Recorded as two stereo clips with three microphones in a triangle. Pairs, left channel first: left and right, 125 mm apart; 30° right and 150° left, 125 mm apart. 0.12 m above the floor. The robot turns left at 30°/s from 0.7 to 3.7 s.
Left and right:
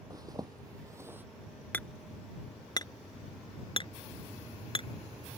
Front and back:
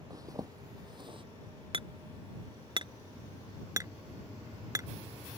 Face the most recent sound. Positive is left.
turn(degrees=100)